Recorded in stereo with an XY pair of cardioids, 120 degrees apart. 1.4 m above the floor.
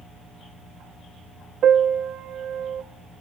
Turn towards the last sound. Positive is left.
turn(degrees=-55)